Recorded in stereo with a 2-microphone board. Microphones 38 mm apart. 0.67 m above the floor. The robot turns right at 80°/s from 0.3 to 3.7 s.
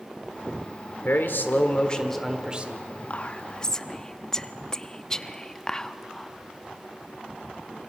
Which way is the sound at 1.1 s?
85° left.